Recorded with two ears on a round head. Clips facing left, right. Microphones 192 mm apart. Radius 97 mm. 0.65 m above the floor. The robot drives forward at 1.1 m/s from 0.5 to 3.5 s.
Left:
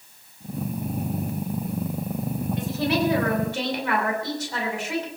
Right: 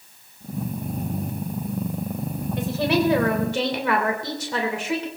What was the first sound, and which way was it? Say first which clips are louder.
A woman speaking: right 3 dB; 50° right (ahead or behind).